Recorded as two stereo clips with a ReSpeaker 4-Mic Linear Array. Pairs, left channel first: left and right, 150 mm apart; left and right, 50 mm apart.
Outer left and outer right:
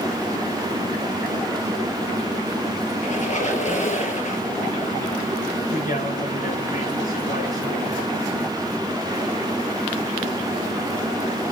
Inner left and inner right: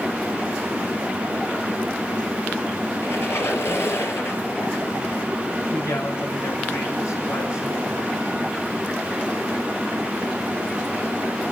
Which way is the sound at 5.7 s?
70° left (ahead or behind).